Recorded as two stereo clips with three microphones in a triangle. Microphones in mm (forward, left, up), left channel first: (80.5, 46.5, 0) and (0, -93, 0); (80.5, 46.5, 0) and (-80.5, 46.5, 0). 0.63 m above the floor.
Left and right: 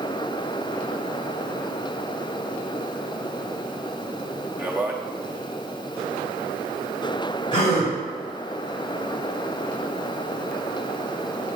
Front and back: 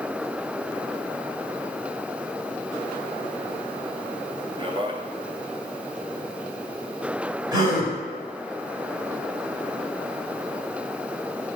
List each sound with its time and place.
4.6 s a man speaking: 175° left, 0.6 m
7.5 s a gasp: 115° left, 2.5 m